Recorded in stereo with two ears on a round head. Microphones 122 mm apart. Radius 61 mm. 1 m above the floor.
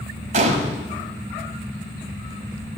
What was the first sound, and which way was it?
A gunshot, 50° right (ahead or behind).